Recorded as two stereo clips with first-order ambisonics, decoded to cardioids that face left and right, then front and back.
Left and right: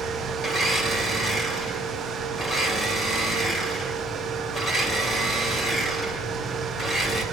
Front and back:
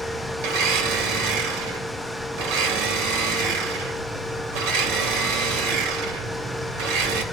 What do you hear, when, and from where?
0.4 s a blender: 165° left, 3 m